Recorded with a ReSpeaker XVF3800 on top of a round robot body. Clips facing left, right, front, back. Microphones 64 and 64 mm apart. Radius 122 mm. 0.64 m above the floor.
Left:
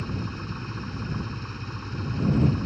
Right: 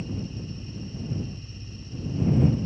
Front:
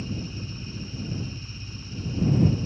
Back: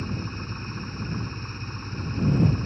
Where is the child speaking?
No child speaking in this recording.